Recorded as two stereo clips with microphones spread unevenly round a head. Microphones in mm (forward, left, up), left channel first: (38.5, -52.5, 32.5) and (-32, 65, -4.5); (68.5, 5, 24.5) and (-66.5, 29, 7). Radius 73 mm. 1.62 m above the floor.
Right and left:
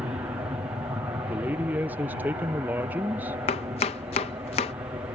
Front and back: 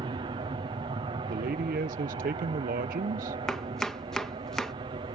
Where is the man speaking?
155° right.